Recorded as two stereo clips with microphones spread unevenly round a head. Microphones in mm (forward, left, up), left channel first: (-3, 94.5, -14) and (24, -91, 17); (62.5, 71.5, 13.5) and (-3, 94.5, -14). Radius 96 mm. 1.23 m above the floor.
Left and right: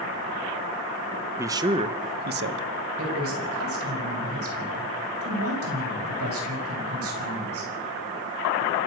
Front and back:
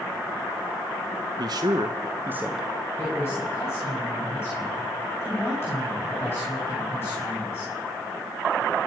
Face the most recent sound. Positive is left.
turn(degrees=-95)